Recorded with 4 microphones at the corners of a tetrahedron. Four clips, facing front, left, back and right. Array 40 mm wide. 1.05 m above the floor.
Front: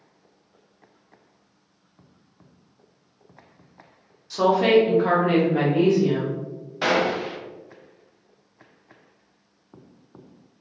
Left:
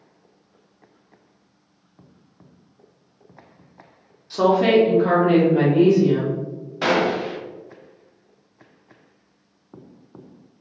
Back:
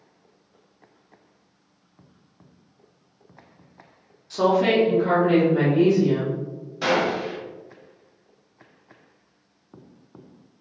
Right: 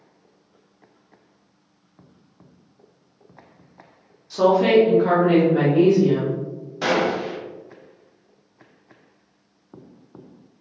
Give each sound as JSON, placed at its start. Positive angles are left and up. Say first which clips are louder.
{"t": 4.3, "sound": "a woman speaking", "louder": "right 1 dB, front 2 dB", "azimuth_deg": 120, "distance_m": 0.6}
{"t": 6.8, "sound": "a gunshot", "louder": "left 1 dB, even", "azimuth_deg": 35, "distance_m": 0.5}